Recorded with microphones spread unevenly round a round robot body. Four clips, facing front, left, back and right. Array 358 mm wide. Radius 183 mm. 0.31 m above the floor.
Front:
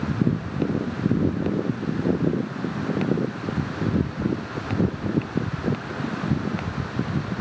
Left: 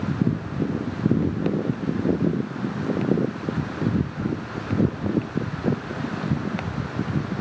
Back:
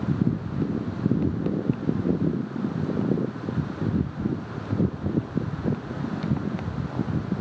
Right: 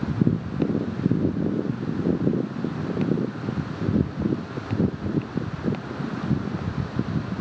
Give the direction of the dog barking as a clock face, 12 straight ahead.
I don't hear a dog barking.